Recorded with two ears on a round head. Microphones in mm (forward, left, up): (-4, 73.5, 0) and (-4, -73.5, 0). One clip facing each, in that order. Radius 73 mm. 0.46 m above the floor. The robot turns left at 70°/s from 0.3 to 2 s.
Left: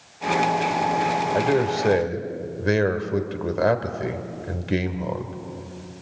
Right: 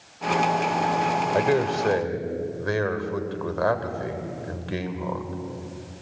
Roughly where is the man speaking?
Behind.